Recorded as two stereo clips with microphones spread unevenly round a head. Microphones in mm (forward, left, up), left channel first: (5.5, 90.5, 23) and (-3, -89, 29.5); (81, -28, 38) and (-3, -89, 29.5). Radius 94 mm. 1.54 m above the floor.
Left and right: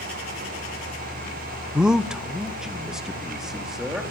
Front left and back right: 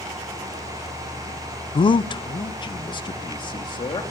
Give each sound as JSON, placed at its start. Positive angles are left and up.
{"t": 1.8, "sound": "a man speaking", "azimuth_deg": -5, "distance_m": 0.6}